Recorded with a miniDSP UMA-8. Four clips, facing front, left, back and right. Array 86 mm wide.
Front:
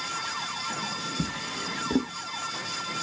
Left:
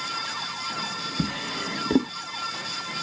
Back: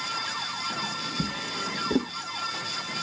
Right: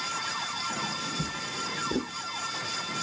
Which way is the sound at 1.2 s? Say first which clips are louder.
Left 5 dB, back 1 dB; 95° left.